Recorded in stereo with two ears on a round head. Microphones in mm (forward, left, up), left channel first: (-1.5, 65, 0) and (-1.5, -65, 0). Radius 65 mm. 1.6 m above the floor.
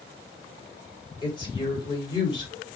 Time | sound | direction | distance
1.2 | a woman speaking | 30° left (ahead or behind) | 5 m